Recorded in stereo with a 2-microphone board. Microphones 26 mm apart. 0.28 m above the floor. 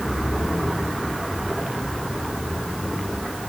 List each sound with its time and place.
Only background noise.